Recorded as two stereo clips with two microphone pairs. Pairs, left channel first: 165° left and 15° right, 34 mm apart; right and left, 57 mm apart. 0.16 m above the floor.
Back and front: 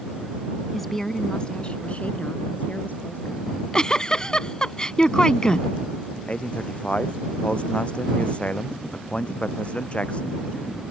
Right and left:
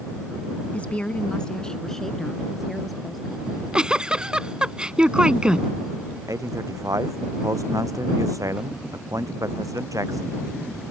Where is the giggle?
140° left.